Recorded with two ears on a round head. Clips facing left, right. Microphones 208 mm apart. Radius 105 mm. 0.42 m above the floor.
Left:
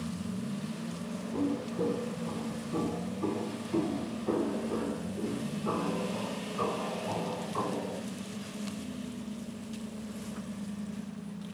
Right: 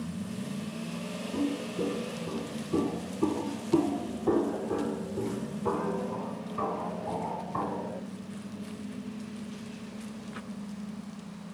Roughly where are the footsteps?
Centre.